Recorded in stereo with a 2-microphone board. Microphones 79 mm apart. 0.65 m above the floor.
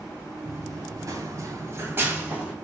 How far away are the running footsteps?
About 1.2 m.